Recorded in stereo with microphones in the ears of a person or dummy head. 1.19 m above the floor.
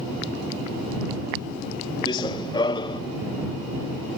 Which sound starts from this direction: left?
Running footsteps, at 2.1 s.